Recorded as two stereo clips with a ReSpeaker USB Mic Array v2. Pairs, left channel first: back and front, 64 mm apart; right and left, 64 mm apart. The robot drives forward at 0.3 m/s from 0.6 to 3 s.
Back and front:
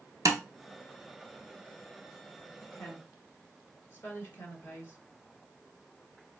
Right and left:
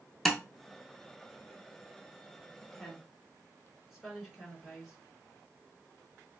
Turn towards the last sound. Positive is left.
turn(degrees=175)